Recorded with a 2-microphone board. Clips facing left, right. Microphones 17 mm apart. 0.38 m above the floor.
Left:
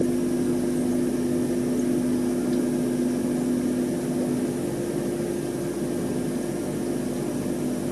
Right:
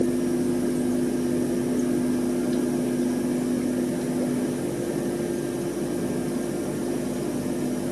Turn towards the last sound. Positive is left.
No sound to turn to.